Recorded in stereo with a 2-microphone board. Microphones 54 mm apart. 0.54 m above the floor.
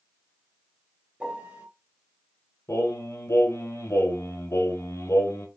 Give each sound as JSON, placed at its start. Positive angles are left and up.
{"t": 1.2, "sound": "a piano", "side_deg": -30, "distance_m": 1.3}
{"t": 2.7, "sound": "singing", "side_deg": 65, "distance_m": 1.6}